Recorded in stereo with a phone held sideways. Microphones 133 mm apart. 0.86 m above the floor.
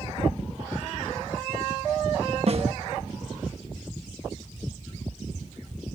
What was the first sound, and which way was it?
A snare drum, 50° right (ahead or behind).